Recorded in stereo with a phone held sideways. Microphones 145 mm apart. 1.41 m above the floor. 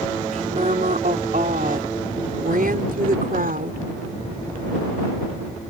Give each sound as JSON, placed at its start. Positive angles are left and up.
{"t": 0.3, "sound": "a woman speaking", "side_deg": -60}